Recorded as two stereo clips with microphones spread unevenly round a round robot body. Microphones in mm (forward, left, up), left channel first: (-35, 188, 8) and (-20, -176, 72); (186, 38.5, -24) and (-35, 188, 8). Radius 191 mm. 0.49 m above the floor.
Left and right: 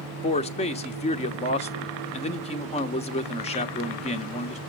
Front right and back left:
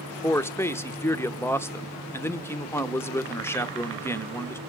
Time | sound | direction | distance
0.2 | a man speaking | 35° left | 0.9 m